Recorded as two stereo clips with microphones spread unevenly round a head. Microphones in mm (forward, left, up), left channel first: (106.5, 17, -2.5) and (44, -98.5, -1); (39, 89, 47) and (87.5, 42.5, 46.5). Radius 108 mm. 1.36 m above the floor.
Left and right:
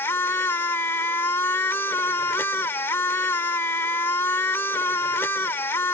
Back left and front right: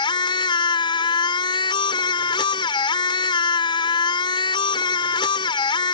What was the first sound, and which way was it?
A machine running, 140° left.